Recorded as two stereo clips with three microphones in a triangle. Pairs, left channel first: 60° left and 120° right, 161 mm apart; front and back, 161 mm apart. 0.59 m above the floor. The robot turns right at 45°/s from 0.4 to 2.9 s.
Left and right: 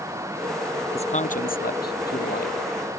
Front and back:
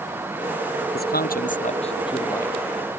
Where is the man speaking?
10° left; by 2.6 s 80° left.